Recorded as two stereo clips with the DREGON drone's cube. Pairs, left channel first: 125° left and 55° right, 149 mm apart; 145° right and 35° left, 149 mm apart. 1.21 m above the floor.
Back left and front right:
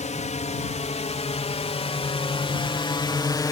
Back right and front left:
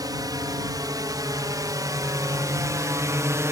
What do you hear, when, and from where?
0.0 s a drone: 95° left; by 3.5 s 85° left